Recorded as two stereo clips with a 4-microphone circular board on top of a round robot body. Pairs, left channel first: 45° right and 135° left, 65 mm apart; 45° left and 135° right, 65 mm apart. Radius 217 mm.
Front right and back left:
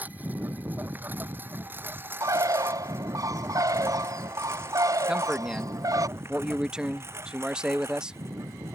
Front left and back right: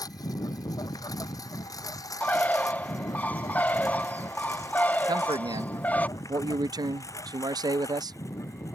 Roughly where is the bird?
Left.